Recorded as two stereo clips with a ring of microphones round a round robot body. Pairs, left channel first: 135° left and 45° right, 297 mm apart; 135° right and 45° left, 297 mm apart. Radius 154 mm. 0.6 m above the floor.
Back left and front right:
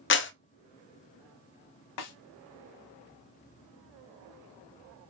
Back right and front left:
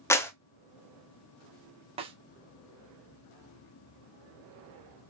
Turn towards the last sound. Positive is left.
turn(degrees=115)